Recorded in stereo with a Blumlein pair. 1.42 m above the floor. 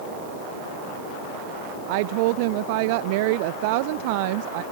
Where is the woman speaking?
45° right.